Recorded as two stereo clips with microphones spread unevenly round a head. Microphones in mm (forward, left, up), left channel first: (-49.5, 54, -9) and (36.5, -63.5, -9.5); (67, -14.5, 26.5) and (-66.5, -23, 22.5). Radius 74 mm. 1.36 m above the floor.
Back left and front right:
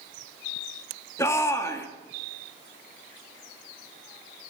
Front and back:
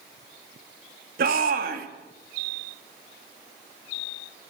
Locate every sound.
1.2 s a shout: 160° right, 3 m